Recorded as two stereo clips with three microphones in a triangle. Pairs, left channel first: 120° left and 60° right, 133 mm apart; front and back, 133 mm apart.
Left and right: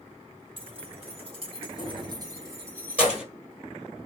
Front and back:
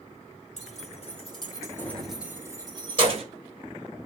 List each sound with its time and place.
0.6 s keys jangling: 15° right, 2 m; by 3.2 s 145° right, 2 m